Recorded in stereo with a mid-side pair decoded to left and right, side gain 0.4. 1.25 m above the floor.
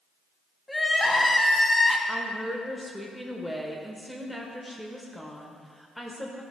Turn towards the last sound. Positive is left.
turn(degrees=0)